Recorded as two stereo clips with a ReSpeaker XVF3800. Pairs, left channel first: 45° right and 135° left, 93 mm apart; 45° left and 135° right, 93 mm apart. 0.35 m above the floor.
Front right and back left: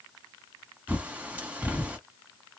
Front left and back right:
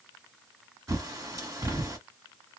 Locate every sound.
0.9 s a bird: 160° right, 1.3 m